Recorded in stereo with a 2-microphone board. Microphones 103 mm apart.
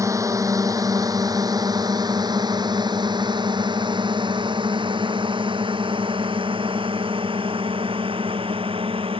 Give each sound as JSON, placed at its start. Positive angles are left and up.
{"t": 0.0, "sound": "a drone", "side_deg": -30}